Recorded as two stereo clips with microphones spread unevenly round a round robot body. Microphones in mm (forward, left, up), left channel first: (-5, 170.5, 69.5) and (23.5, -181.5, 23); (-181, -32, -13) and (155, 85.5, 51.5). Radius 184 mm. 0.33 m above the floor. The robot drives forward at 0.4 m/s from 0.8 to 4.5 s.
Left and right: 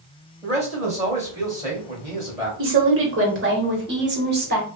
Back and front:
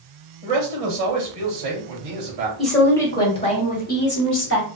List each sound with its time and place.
0.4 s a man speaking: 5° right, 2 m
2.6 s a woman speaking: 85° right, 1.1 m; by 4.8 s 135° right, 1.3 m